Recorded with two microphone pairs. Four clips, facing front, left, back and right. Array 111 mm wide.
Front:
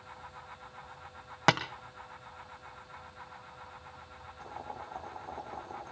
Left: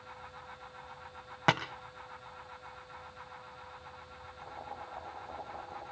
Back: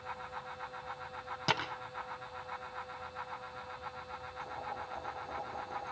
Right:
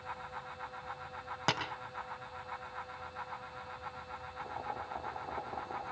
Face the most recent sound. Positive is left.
turn(degrees=-55)